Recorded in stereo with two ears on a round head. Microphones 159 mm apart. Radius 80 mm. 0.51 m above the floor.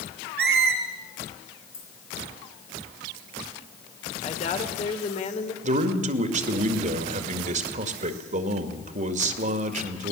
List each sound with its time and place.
0.4 s a squeak: 60° right (ahead or behind), 3 m
1.7 s keys jangling: 20° left (ahead or behind), 7 m
4.2 s a woman speaking: 40° left (ahead or behind), 2.0 m
5.6 s a man speaking: 45° right (ahead or behind), 1.9 m